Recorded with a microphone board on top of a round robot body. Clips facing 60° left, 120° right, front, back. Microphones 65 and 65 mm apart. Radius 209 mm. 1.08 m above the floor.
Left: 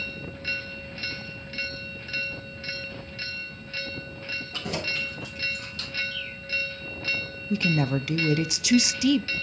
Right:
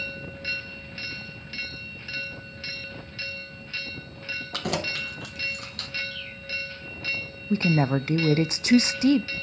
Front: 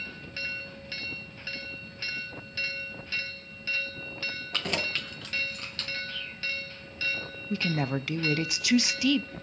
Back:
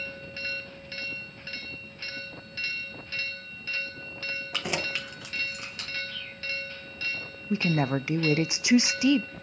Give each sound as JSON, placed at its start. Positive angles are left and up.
{"t": 4.5, "sound": "keys jangling", "azimuth_deg": -100, "distance_m": 0.7}
{"t": 6.1, "sound": "a bird", "azimuth_deg": -140, "distance_m": 5.5}
{"t": 7.5, "sound": "a woman speaking", "azimuth_deg": -125, "distance_m": 0.5}